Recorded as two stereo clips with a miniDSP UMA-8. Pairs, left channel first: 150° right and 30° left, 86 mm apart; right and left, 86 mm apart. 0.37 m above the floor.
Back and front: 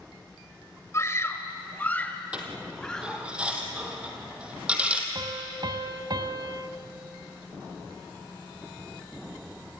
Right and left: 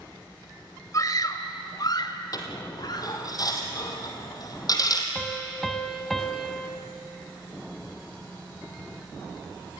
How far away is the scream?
About 1.7 m.